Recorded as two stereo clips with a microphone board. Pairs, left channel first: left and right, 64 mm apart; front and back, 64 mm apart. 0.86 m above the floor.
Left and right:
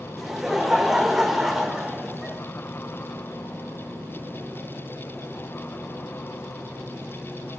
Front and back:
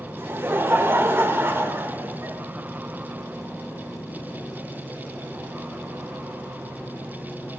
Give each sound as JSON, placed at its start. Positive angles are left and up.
{"t": 0.2, "sound": "laughter", "azimuth_deg": -175, "distance_m": 1.1}